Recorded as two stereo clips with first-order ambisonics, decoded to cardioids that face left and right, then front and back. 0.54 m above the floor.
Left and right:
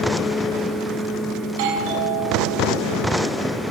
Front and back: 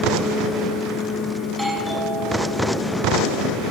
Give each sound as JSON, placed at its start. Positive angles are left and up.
{"t": 1.5, "sound": "a doorbell", "azimuth_deg": -90, "distance_m": 5.0}